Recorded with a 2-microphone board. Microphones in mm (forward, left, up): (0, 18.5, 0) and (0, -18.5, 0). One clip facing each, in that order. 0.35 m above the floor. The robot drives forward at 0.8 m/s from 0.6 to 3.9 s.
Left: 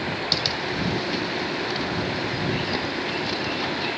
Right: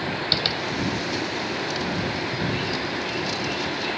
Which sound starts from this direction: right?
Tapping, at 0.3 s.